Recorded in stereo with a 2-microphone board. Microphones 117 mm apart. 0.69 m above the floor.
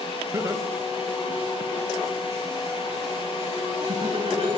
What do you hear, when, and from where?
0.3 s laughter: 25° right (ahead or behind), 3.5 m; by 4.6 s 55° right (ahead or behind), 4.5 m